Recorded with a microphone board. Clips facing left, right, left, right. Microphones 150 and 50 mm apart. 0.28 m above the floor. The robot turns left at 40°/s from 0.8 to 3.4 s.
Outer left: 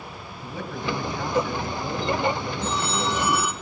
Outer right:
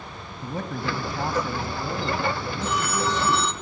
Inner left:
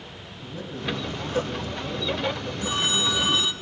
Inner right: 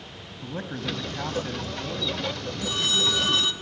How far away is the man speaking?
About 1.9 m.